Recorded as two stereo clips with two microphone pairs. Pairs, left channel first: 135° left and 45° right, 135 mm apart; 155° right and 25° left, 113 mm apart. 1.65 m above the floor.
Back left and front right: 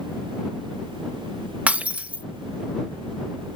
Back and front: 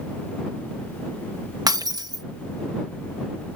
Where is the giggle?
I don't hear a giggle.